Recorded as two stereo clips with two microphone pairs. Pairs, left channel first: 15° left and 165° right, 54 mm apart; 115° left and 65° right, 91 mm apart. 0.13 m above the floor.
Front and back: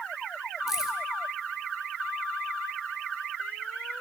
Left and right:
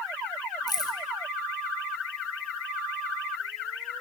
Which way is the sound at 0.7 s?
120° left.